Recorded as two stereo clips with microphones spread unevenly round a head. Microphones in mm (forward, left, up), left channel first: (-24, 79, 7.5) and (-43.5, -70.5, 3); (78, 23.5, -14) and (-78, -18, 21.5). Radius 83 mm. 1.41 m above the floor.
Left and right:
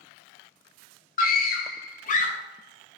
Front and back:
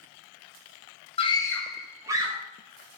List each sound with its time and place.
1.2 s a scream: 55° left, 0.6 m; by 2.4 s 125° left, 0.9 m